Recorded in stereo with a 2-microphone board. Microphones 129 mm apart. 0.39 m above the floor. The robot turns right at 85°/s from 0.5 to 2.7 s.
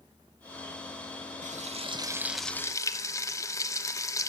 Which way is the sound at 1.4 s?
85° right.